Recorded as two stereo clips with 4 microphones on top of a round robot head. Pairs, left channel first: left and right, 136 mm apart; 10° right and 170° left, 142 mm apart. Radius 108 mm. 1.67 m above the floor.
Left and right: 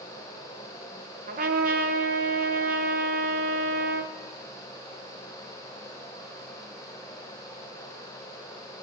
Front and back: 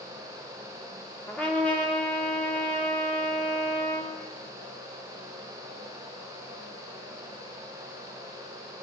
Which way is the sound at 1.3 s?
95° right.